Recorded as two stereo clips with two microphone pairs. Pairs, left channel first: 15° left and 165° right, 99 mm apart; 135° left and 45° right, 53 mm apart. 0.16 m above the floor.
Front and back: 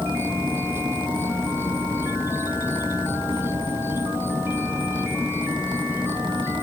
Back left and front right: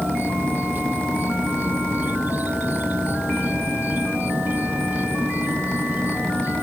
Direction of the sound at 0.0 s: 100° right.